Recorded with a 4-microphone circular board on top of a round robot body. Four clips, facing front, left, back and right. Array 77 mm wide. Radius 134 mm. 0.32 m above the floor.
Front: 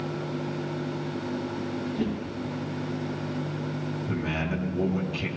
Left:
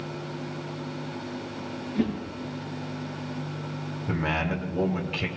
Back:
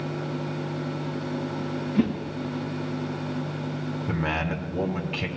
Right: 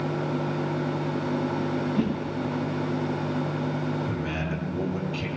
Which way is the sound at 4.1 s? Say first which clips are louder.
Left 2 dB, back 2 dB; 145° left.